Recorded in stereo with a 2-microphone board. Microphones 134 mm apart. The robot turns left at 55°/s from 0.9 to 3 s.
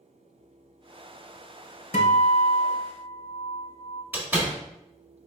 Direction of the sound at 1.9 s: 100° left.